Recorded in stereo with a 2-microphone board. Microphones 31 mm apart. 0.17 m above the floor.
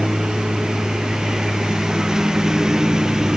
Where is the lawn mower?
20° right (ahead or behind).